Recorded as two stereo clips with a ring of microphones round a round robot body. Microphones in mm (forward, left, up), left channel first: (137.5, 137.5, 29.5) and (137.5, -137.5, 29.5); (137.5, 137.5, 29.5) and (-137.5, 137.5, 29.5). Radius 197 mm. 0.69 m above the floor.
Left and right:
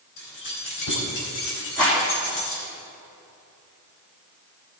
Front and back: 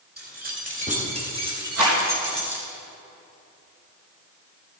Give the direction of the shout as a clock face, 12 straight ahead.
I don't hear a shout.